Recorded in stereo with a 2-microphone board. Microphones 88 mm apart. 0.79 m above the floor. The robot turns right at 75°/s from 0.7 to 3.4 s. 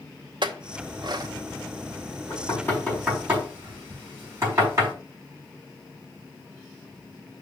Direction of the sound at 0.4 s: 60° right (ahead or behind).